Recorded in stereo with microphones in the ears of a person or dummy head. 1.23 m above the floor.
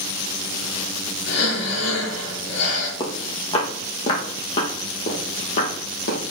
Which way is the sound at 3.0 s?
30° left (ahead or behind).